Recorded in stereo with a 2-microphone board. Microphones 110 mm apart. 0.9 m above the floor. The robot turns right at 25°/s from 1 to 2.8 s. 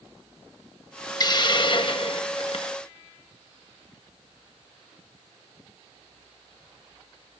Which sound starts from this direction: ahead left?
A hiss, at 1.2 s.